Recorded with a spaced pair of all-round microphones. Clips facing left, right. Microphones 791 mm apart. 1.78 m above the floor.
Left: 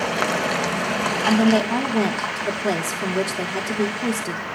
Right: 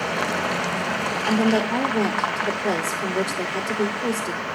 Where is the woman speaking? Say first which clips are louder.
Left 3 dB; 45° left (ahead or behind), 0.9 m.